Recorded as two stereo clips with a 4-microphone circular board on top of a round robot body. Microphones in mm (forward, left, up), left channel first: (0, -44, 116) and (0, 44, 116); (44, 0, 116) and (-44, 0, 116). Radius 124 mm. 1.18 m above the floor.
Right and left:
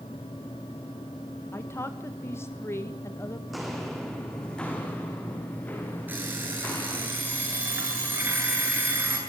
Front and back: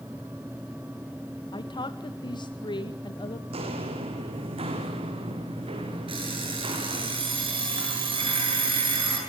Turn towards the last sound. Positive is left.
turn(degrees=160)